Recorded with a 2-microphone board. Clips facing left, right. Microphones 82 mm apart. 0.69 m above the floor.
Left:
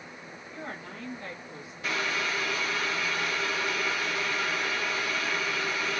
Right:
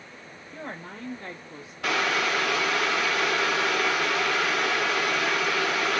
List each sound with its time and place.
0.5 s a woman speaking: 40° right (ahead or behind), 1.5 m; by 1.7 s 25° right (ahead or behind), 1.2 m
1.8 s boiling: 80° right, 0.6 m